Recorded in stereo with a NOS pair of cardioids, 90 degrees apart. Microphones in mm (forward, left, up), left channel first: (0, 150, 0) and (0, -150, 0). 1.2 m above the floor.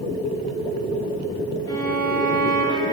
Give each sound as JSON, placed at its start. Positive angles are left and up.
{"t": 1.7, "sound": "a violin", "azimuth_deg": 15, "distance_m": 1.7}